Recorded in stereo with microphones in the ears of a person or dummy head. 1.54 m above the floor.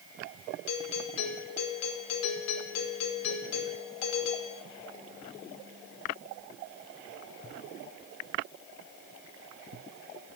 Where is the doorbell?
85° left, 5.5 m.